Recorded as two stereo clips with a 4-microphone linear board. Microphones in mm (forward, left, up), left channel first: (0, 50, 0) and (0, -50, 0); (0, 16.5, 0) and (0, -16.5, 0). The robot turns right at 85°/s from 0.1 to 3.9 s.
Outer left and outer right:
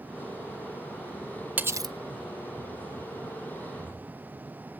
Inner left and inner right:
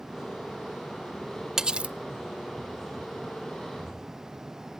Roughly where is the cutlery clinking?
Behind.